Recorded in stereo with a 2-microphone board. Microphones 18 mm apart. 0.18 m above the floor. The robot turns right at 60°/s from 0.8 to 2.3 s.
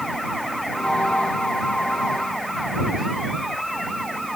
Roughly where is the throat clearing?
I don't hear throat clearing.